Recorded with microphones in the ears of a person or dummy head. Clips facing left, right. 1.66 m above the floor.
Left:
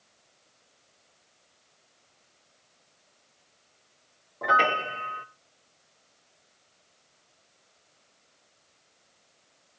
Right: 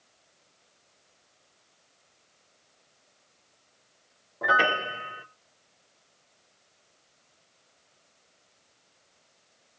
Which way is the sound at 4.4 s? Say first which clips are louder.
Even; 5° right (ahead or behind).